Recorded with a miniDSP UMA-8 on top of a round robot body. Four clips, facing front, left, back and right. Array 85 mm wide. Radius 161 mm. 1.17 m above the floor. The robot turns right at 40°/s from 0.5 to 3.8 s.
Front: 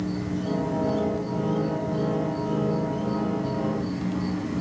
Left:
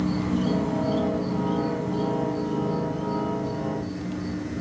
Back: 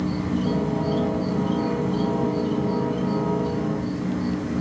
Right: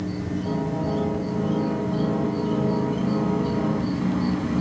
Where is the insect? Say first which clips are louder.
Left 3 dB, back 4 dB; 125° left, 1.4 m; by 4.6 s 105° right, 1.4 m.